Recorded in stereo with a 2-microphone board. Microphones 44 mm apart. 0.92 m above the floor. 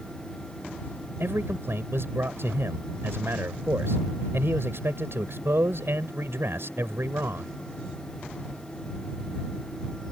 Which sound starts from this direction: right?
A man speaking, at 1.2 s.